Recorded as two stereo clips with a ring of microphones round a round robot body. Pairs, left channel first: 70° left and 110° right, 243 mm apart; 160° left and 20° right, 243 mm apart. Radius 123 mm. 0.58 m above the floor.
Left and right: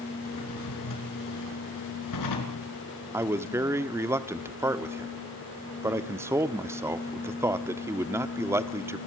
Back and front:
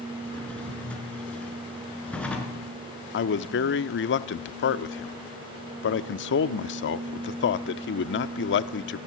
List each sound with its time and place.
0.2 s a drawer: 75° left, 5.5 m
3.1 s a man speaking: 170° left, 1.2 m